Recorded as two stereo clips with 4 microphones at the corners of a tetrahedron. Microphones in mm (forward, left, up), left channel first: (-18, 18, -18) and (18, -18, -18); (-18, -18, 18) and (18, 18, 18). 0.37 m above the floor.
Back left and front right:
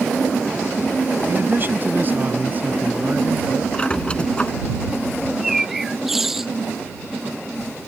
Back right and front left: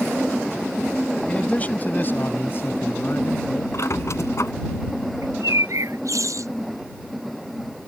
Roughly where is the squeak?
Behind right.